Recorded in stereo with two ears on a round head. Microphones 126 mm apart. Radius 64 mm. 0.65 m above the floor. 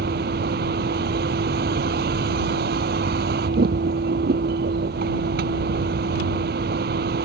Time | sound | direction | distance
0.0 | a vehicle | 70° right (ahead or behind) | ?